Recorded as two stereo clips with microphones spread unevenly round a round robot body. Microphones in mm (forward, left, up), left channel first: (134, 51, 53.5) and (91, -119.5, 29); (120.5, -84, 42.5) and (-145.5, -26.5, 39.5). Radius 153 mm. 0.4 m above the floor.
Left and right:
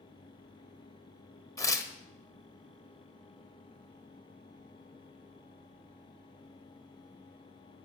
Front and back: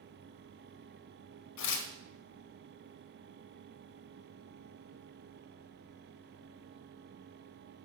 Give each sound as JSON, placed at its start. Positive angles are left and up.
{"t": 1.6, "sound": "tearing paper", "azimuth_deg": 0, "distance_m": 1.4}